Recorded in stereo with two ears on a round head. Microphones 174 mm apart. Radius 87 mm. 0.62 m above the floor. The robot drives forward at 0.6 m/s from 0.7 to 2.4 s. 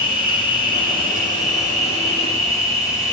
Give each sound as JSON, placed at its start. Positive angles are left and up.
{"t": 0.0, "sound": "an insect", "side_deg": 25, "distance_m": 1.9}